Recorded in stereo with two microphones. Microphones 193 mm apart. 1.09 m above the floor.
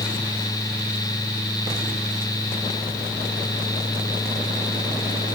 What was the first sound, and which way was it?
Only background noise.